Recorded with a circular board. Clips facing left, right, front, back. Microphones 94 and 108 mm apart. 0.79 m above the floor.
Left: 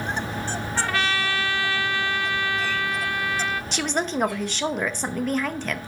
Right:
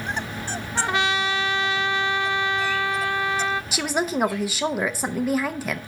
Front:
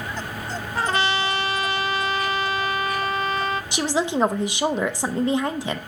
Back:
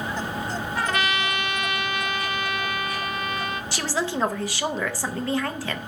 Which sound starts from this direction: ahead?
A woman speaking, at 3.7 s.